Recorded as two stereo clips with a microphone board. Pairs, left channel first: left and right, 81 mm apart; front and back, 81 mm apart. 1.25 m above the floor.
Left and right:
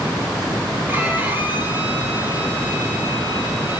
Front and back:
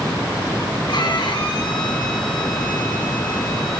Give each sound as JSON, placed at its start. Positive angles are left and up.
{"t": 0.9, "sound": "a violin", "azimuth_deg": -25, "distance_m": 2.5}